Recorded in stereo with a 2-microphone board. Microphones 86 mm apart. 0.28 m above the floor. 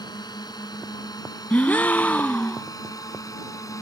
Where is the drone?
55° left (ahead or behind); by 3.8 s 40° left (ahead or behind).